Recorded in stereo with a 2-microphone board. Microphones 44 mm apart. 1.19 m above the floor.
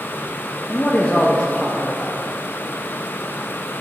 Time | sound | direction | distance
0.7 | a man speaking | 35° left (ahead or behind) | 0.8 m